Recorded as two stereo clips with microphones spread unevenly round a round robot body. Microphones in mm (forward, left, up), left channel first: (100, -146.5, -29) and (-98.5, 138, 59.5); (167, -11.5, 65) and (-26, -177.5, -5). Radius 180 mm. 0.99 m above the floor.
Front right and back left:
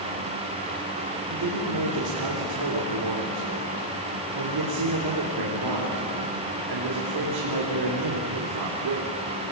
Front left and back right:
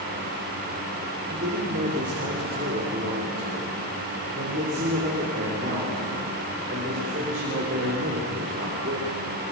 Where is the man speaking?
160° left, 4 m.